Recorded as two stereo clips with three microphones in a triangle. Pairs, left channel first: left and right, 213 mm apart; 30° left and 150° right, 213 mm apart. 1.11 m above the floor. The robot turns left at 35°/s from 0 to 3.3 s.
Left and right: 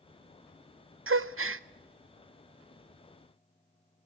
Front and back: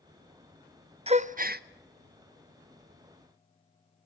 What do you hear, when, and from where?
1.1 s a gasp: 85° right, 0.6 m; by 1.6 s 105° right, 0.6 m